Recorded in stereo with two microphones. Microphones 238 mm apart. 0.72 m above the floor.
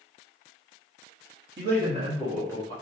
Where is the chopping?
No chopping in this recording.